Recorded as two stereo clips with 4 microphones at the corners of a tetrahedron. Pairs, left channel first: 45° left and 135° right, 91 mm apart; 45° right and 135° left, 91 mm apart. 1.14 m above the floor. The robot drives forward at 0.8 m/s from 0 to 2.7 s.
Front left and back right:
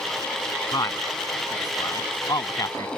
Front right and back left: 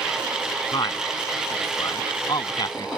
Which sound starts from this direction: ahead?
A man speaking, at 0.7 s.